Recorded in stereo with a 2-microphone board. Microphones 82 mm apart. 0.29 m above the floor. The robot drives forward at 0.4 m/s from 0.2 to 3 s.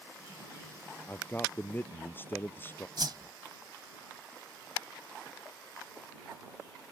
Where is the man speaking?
25° left (ahead or behind).